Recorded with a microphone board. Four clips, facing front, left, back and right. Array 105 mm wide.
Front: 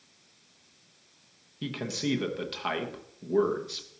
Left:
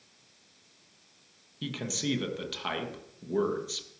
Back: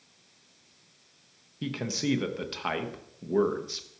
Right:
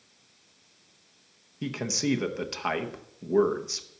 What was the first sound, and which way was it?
A man speaking, 100° right.